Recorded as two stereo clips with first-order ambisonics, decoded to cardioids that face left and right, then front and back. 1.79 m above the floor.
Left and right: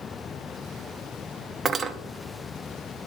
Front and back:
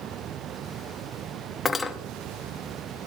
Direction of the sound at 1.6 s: 60° right.